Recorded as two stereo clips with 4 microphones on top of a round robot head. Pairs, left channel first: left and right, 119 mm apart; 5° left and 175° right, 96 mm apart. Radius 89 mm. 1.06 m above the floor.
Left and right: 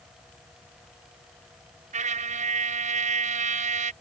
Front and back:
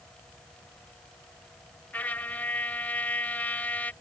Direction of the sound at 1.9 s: 75° right.